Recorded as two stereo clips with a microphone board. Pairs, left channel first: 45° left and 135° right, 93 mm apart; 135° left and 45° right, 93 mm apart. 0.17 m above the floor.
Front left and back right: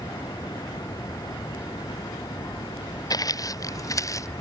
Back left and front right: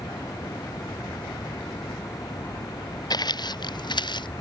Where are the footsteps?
90° left; by 4.3 s 100° left.